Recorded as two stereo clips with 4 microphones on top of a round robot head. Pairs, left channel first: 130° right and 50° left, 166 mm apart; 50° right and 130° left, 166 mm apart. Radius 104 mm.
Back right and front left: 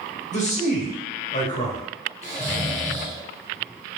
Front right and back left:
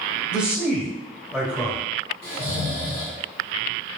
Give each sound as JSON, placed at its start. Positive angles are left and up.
{"t": 0.3, "sound": "a man speaking", "azimuth_deg": -150, "distance_m": 1.4}
{"t": 2.2, "sound": "snoring", "azimuth_deg": 115, "distance_m": 1.7}